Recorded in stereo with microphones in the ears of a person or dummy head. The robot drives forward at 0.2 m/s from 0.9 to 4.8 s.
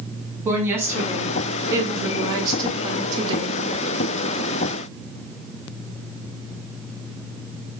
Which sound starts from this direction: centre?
A woman speaking, at 0.5 s.